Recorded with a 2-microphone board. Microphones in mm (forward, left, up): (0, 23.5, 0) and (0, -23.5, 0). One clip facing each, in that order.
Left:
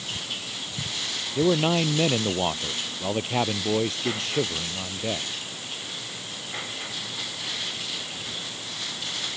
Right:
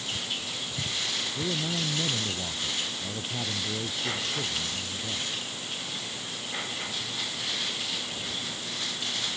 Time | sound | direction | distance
1.4 | a man speaking | 80° left | ?